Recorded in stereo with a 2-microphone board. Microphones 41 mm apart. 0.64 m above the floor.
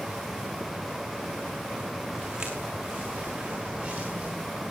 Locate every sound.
2.1 s footsteps: 15° right (ahead or behind), 3 m; by 4.3 s 20° right (ahead or behind), 5.5 m